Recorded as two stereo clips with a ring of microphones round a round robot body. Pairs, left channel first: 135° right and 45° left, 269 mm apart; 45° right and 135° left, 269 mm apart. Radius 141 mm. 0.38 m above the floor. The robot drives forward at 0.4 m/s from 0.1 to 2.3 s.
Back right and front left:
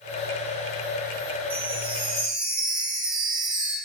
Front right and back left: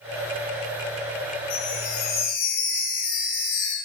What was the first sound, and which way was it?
A chime, 25° right.